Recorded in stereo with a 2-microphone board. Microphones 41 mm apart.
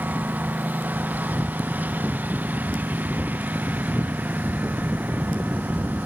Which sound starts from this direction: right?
A lawn mower, at 0.0 s.